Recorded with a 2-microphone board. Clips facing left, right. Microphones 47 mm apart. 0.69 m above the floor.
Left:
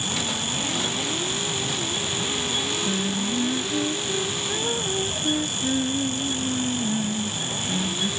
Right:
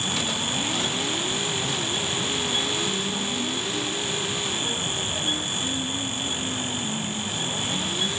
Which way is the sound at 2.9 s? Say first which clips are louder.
Left 2 dB; 40° left (ahead or behind).